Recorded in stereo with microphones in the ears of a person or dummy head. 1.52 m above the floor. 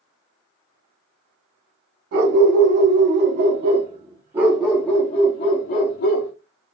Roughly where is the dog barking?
Right.